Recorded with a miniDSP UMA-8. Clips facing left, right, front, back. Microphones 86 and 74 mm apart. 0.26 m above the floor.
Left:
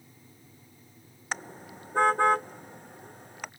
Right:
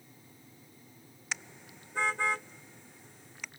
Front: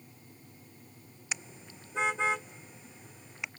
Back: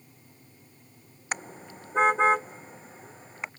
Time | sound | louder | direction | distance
1.3 | a car horn | left 6 dB, back 7 dB | 135° left | ?